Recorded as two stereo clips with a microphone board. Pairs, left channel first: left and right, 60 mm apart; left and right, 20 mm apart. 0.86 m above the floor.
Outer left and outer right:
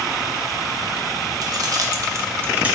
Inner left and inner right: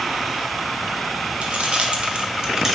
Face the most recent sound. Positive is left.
turn(degrees=-15)  # may be behind; listen again after turning